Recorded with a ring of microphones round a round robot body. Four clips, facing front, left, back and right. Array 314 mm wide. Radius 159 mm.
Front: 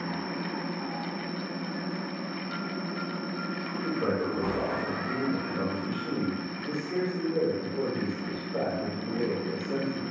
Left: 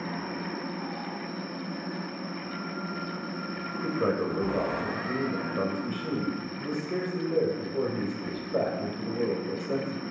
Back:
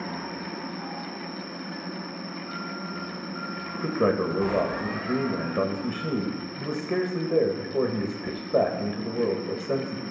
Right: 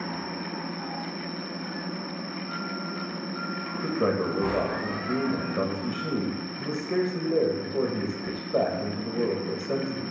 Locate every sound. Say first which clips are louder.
0.0 s an insect: even, front 1 dB; 165° right, 1.7 m
3.8 s a man speaking: right 2 dB, back 5 dB; 160° right, 1.7 m